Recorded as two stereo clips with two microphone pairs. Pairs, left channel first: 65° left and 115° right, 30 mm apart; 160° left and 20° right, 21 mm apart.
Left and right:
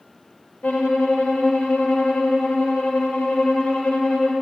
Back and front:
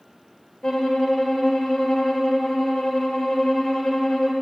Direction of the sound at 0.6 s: 100° left.